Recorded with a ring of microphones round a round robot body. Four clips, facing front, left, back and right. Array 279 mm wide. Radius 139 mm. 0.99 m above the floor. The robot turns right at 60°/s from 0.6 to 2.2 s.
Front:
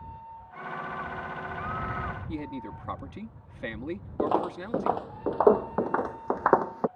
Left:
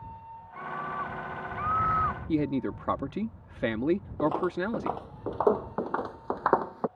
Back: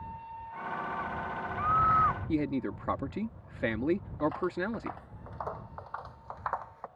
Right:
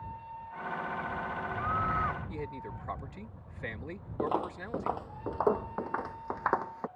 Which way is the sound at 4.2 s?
5° right.